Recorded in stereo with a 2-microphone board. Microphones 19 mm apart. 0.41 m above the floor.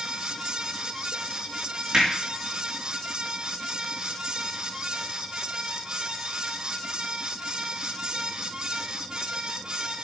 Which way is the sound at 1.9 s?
35° right (ahead or behind).